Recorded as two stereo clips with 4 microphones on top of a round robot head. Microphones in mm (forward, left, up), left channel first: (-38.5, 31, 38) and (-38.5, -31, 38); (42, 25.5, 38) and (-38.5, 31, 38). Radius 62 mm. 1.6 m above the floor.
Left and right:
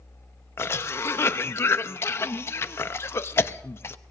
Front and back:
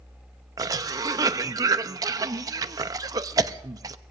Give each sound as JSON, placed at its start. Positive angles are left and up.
{"t": 0.6, "sound": "a cough", "azimuth_deg": 135, "distance_m": 0.6}